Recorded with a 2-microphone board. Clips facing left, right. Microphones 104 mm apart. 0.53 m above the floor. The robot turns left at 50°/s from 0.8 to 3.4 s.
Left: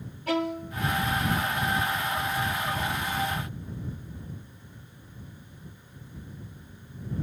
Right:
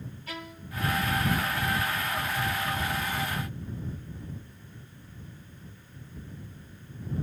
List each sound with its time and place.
0.3 s a violin: 70° left (ahead or behind)